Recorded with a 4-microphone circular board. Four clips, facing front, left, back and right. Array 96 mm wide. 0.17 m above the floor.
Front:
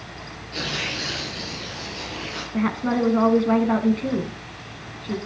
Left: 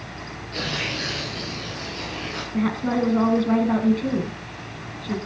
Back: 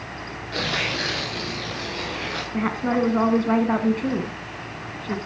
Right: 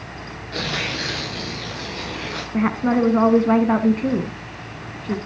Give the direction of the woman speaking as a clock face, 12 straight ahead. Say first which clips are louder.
Right 4 dB, front 1 dB; 3 o'clock.